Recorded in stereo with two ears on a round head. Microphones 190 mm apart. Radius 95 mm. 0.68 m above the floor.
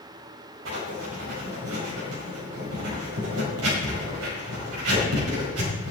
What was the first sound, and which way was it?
Writing, 80° right.